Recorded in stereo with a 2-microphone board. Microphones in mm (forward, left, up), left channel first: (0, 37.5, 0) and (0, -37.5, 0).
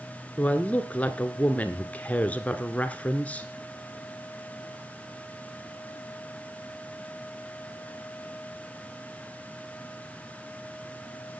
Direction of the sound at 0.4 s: 20° left (ahead or behind).